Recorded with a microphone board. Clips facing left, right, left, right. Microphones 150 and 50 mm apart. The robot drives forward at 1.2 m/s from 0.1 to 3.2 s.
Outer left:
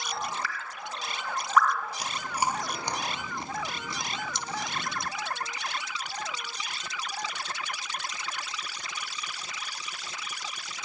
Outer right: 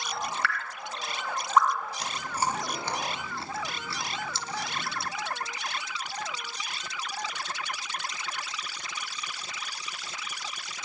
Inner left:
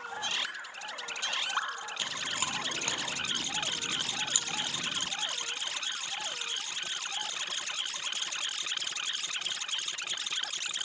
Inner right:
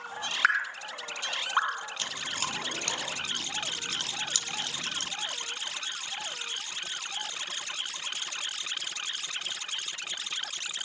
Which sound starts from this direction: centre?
Chewing, at 2.0 s.